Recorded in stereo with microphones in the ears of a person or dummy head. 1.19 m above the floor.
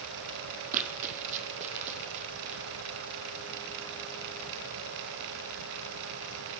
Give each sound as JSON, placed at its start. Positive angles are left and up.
{"t": 0.7, "sound": "running footsteps", "side_deg": -45, "distance_m": 2.0}